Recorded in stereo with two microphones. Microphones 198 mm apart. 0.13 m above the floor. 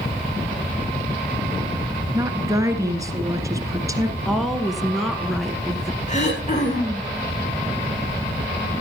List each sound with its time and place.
2.1 s a woman speaking: 15° right (ahead or behind), 1.7 m
4.2 s a woman speaking: centre (ahead or behind), 1.3 m
6.1 s throat clearing: 40° left (ahead or behind), 6 m